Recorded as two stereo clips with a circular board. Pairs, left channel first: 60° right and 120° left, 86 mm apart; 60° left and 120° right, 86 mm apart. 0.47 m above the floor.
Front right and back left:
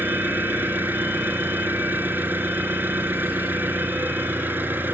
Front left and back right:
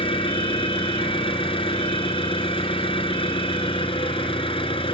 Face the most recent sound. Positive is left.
turn(degrees=50)